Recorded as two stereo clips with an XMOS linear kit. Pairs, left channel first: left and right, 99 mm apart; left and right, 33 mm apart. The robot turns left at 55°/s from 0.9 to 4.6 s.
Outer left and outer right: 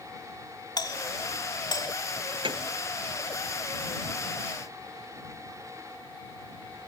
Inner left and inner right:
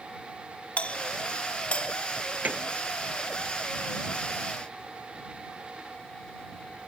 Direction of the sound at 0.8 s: 40° left (ahead or behind).